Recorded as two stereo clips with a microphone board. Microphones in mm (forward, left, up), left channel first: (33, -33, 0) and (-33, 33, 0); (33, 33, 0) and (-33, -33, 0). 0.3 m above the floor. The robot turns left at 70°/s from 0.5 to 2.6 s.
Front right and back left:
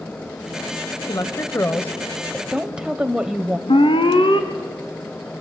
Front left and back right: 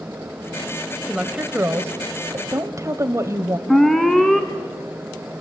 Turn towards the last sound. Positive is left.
turn(degrees=-40)